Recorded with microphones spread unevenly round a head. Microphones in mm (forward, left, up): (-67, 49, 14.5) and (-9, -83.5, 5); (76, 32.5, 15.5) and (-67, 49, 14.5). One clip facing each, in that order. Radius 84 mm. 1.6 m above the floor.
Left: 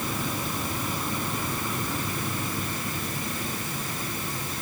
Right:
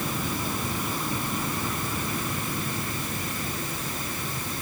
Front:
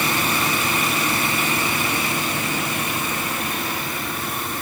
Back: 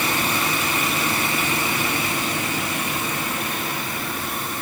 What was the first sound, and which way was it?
Only background noise.